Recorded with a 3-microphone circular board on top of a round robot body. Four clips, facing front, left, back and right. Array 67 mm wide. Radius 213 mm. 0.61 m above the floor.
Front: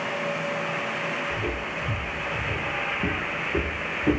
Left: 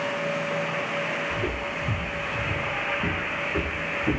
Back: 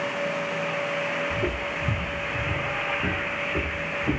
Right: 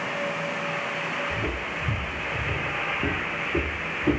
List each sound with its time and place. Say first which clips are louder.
1.3 s footsteps: left 1 dB, back 2 dB; 160° right, 1.0 m; by 4.2 s 15° right, 1.0 m